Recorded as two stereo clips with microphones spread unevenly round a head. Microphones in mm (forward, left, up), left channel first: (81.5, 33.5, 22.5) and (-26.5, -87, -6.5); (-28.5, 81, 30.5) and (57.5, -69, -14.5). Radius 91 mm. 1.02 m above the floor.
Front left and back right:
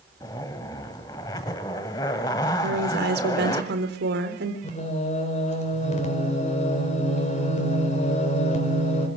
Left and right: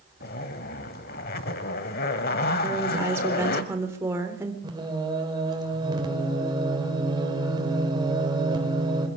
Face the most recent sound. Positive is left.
turn(degrees=5)